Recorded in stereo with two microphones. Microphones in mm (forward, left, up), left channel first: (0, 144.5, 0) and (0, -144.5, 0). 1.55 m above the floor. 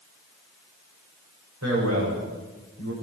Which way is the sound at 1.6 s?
65° right (ahead or behind).